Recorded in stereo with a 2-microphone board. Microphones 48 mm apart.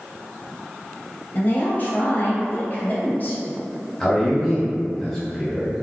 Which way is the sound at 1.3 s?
40° left (ahead or behind).